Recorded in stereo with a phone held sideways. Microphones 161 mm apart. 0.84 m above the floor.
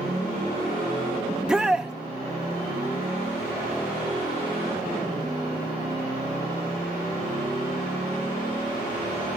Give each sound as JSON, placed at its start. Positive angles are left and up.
{"t": 1.3, "sound": "a shout", "side_deg": -5, "distance_m": 0.6}